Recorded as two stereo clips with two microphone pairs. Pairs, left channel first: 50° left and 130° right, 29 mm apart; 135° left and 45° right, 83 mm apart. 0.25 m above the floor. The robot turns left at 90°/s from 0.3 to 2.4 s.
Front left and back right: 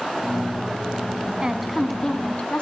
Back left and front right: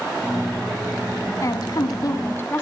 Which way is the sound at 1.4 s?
170° left.